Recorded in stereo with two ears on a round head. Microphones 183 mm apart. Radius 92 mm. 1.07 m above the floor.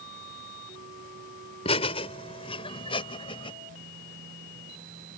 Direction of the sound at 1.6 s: 30° left (ahead or behind).